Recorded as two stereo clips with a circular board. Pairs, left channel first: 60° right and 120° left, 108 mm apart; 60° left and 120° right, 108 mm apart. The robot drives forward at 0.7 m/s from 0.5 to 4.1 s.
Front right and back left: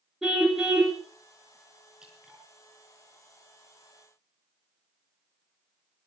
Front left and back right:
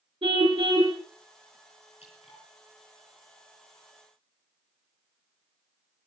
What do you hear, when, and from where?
0.2 s a car horn: 155° right, 2.5 m
2.0 s dripping: 35° left, 5 m; by 2.4 s 40° left, 4.5 m